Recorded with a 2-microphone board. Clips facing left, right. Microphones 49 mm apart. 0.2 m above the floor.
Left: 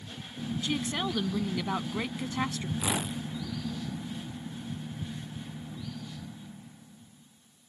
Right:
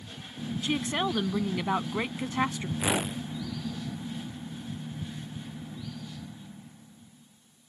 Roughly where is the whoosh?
Right.